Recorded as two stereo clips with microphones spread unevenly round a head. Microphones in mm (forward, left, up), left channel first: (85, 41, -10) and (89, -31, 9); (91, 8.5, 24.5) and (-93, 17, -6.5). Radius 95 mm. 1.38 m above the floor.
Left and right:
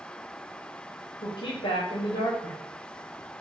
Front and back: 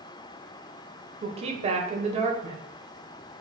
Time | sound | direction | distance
1.2 | a woman speaking | 120° left | 0.7 m